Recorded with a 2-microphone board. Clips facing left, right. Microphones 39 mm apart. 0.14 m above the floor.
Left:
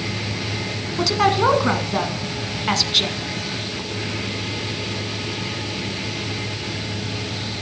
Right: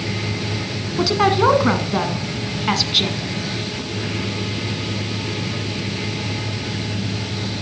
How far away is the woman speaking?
About 1.1 m.